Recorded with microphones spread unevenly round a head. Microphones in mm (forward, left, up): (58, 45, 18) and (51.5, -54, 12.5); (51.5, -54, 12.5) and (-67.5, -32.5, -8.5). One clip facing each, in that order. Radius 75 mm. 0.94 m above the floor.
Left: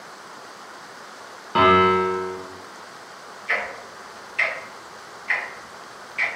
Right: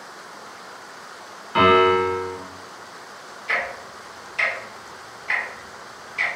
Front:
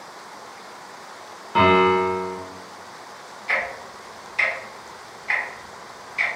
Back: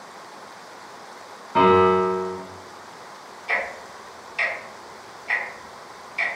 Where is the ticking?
135° right, 0.8 m.